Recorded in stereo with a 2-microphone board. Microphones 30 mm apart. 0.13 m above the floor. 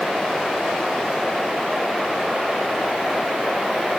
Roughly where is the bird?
I don't hear a bird.